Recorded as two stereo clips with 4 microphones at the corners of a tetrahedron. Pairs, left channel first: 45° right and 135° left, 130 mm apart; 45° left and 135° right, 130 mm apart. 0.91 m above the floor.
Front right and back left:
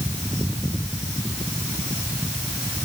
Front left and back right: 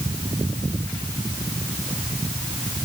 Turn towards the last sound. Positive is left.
No sound to turn to.